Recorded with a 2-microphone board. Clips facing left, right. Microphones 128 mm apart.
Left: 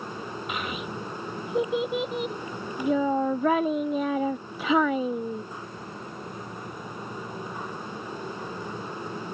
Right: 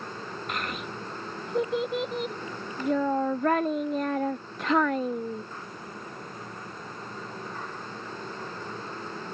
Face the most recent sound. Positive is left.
turn(degrees=5)  # may be behind; listen again after turning